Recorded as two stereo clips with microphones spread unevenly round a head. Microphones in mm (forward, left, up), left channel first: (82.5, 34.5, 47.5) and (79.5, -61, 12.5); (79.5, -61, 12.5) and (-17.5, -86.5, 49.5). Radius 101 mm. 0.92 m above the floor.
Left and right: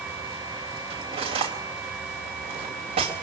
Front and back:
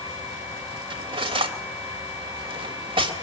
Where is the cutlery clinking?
130° right, 3 m.